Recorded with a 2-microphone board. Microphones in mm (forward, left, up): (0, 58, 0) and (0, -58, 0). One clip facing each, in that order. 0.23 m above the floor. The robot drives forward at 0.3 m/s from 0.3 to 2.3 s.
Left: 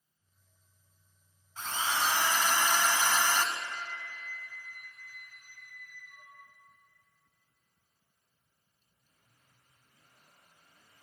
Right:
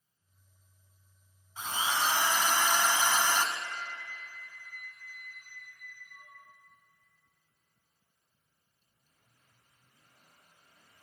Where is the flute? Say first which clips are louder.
Even; 55° left (ahead or behind), 6.5 m.